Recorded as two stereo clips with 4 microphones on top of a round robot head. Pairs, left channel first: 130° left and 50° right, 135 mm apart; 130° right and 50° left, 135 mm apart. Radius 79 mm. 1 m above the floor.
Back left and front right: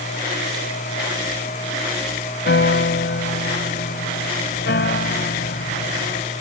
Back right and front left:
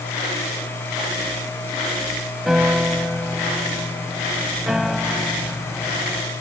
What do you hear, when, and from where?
2.5 s a piano: 135° left